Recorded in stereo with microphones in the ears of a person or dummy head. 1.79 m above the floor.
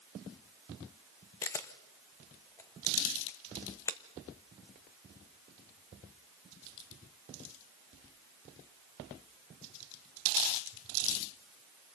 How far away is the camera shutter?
About 1.0 m.